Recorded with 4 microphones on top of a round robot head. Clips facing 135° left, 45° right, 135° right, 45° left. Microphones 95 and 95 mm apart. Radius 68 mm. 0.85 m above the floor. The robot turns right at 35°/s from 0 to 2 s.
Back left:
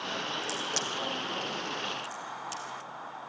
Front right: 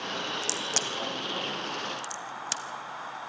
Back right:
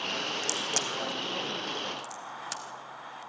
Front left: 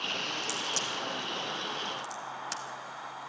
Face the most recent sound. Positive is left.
turn(degrees=-50)